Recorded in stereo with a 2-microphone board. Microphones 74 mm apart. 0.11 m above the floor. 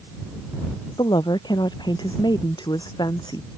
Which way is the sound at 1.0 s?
80° left.